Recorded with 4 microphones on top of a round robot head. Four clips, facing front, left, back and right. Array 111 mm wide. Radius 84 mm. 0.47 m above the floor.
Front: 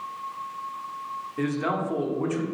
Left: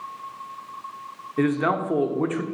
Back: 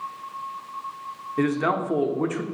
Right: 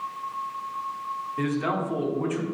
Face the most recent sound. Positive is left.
turn(degrees=125)